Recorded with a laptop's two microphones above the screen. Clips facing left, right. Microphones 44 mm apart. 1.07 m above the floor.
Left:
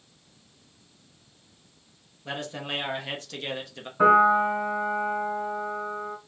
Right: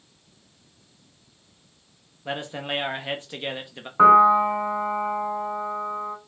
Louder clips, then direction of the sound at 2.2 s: Right 3 dB; 20° right (ahead or behind).